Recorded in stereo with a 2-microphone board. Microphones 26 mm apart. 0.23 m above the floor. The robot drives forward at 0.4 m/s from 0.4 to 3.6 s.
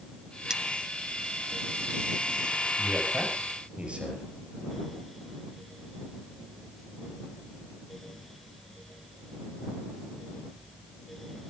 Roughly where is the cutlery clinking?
Right.